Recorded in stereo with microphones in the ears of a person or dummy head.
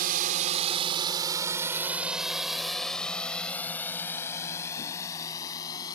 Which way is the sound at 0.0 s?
55° right (ahead or behind).